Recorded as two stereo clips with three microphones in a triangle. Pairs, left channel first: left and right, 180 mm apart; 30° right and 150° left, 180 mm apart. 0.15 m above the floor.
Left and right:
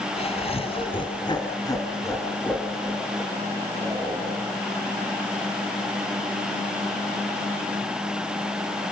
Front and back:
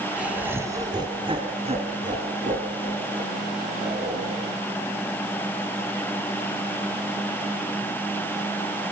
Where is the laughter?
70° left, 1.8 m; by 4.5 s 175° right, 3.5 m.